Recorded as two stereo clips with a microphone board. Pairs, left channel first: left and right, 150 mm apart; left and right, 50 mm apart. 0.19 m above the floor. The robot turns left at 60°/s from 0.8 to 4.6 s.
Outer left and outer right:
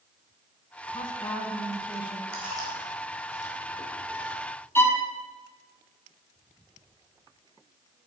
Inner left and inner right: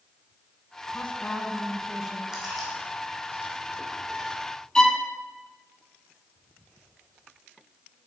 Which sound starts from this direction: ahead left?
A woman speaking, at 0.9 s.